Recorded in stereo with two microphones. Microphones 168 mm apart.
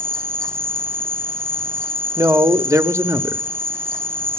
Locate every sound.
0.0 s an insect: 15° right (ahead or behind), 0.7 m
2.2 s a man speaking: 20° right (ahead or behind), 0.9 m